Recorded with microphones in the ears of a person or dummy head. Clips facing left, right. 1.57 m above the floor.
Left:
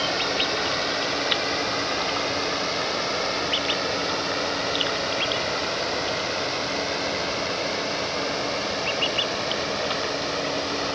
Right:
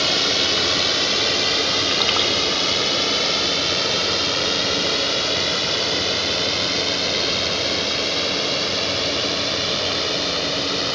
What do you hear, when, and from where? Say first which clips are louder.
0.0 s a drone: right 2 dB; 45° right (ahead or behind)